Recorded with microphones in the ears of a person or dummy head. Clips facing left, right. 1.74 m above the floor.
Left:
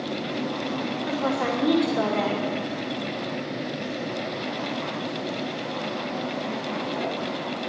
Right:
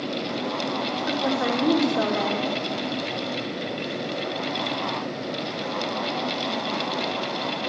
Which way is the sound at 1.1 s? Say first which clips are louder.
Right 1 dB; 5° right (ahead or behind).